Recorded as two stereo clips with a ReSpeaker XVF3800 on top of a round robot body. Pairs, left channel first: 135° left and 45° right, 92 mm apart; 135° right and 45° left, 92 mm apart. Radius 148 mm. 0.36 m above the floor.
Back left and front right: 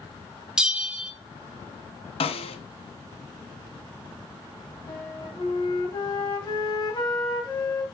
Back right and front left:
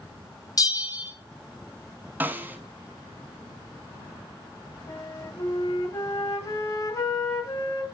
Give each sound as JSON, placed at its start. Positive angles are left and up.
{"t": 0.6, "sound": "a bell", "azimuth_deg": -125, "distance_m": 1.5}
{"t": 2.2, "sound": "a snare drum", "azimuth_deg": 115, "distance_m": 0.8}
{"t": 4.9, "sound": "a flute", "azimuth_deg": 180, "distance_m": 2.5}